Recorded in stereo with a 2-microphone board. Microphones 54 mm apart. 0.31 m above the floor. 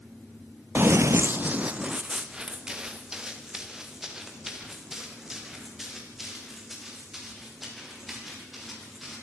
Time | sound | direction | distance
0.8 | running footsteps | 40° right (ahead or behind) | 0.6 m